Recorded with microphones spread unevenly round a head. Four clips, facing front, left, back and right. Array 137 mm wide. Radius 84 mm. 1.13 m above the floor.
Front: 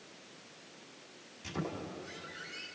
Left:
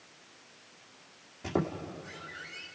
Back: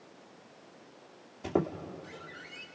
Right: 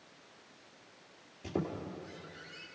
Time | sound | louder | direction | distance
1.4 | a squeak | left 4 dB, back 8 dB | 155° left | 2 m